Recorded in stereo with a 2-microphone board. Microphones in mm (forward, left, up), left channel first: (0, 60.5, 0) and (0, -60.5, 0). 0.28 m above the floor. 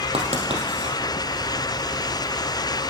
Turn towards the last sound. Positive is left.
turn(degrees=-55)  # may be behind; listen again after turning